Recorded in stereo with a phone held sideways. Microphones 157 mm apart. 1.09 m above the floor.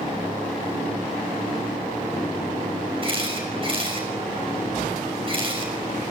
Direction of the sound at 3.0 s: 35° right (ahead or behind).